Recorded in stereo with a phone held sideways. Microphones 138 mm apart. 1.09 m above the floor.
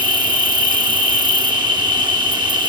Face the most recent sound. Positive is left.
turn(degrees=-30)  # may be behind; listen again after turning